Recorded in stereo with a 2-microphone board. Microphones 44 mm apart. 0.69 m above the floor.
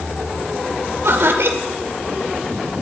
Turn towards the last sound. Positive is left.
turn(degrees=-70)  # may be behind; listen again after turning